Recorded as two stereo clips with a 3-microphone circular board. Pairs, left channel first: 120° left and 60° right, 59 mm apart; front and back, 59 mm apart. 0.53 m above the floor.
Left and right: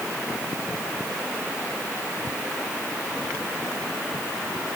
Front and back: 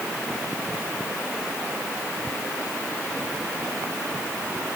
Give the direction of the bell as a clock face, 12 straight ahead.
No bell in this recording.